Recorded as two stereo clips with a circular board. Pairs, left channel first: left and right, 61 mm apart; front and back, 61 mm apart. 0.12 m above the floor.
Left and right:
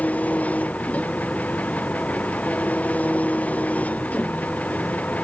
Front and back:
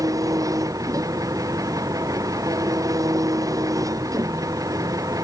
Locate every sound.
0.0 s an engine running: 155° left